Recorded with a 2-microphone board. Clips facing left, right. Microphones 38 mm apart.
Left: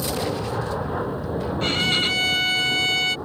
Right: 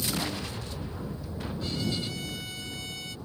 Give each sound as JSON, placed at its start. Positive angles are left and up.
{"t": 0.0, "sound": "an aircraft", "side_deg": 60}
{"t": 1.6, "sound": "a violin", "side_deg": 65}